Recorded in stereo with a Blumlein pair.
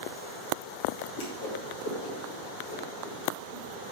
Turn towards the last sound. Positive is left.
turn(degrees=50)